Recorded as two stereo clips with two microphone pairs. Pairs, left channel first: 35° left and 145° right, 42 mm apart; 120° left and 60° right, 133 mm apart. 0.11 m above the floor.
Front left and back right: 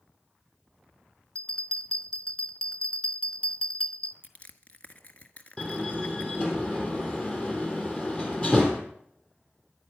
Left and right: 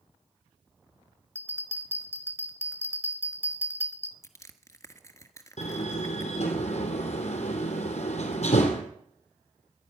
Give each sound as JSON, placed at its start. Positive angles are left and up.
{"t": 1.4, "sound": "a bell", "azimuth_deg": 0, "distance_m": 1.5}
{"t": 4.2, "sound": "crushing", "azimuth_deg": 70, "distance_m": 1.4}
{"t": 5.6, "sound": "a door slam", "azimuth_deg": 100, "distance_m": 3.5}